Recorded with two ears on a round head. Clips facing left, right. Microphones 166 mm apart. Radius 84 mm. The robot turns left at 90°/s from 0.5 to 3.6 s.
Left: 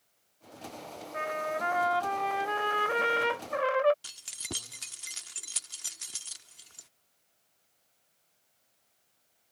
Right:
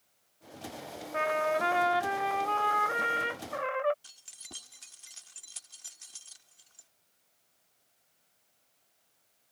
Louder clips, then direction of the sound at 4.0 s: Left 12 dB; 65° left (ahead or behind).